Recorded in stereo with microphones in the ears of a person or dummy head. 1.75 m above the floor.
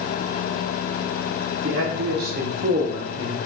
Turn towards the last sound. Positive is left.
turn(degrees=-20)  # may be behind; listen again after turning